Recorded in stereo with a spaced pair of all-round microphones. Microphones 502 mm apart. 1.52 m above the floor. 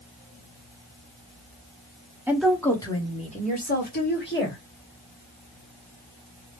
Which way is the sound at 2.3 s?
5° right (ahead or behind).